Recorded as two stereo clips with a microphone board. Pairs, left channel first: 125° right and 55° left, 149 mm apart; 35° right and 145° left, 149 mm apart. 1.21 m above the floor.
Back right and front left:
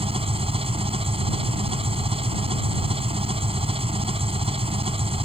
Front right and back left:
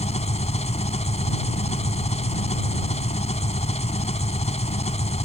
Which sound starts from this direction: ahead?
An engine running, at 0.0 s.